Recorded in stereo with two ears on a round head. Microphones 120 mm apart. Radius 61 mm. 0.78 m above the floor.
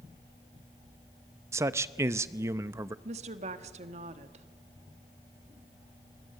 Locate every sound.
1.5 s a man speaking: 20° right (ahead or behind), 0.7 m
3.0 s a woman speaking: 50° right (ahead or behind), 1.6 m